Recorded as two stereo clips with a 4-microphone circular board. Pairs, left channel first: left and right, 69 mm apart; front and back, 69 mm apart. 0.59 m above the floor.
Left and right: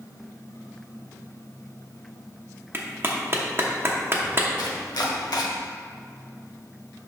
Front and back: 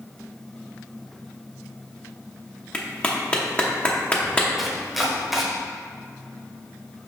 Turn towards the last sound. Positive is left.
turn(degrees=90)